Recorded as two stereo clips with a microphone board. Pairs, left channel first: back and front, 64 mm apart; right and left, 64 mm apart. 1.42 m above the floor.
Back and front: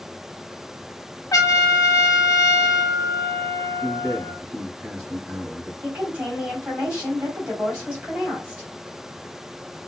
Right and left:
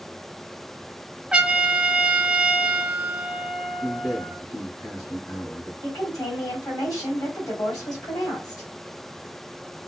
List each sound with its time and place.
1.3 s a trumpet: 165° left, 0.7 m
3.8 s a man speaking: 50° right, 3 m
5.8 s a woman speaking: 70° right, 3 m